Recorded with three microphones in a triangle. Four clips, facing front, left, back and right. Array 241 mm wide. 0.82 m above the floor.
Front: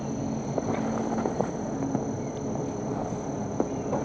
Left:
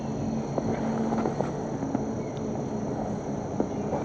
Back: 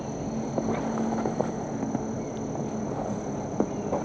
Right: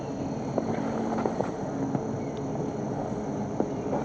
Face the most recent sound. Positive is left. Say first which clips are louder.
# left 1 dB, front 1 dB
turn(degrees=-50)